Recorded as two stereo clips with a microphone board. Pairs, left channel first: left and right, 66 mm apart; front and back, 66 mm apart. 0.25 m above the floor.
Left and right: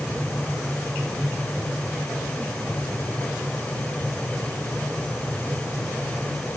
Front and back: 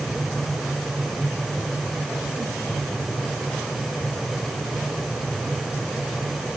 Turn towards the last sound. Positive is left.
No sound to turn to.